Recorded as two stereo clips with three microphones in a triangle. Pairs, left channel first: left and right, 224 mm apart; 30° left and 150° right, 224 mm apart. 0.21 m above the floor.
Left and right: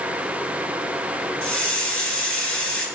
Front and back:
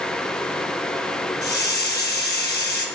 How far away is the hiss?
About 1.6 m.